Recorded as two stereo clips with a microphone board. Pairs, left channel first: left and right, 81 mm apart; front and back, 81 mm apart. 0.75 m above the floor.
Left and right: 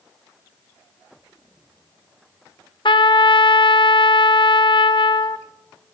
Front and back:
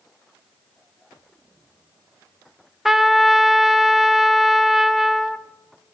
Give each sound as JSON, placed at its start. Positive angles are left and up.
{"t": 2.9, "sound": "a trumpet", "azimuth_deg": 95, "distance_m": 0.6}